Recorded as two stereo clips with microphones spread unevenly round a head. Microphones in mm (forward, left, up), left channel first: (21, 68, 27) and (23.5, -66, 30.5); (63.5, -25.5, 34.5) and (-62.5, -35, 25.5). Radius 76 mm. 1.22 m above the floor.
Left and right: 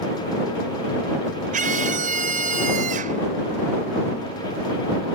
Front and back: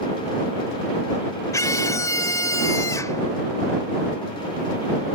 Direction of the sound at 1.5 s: 60° right.